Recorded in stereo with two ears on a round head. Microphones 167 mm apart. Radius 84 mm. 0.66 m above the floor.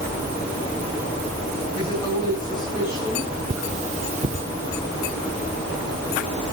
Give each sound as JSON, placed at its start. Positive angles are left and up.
{"t": 1.7, "sound": "a woman speaking", "side_deg": 20, "distance_m": 4.5}
{"t": 3.5, "sound": "cutlery clinking", "side_deg": -35, "distance_m": 0.8}